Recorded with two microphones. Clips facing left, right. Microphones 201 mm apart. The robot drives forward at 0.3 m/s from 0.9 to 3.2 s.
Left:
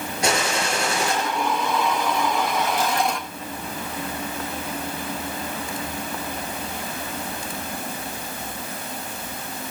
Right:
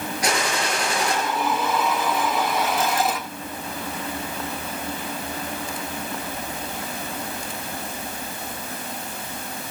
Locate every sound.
0.2 s a gunshot: 25° left (ahead or behind), 4.5 m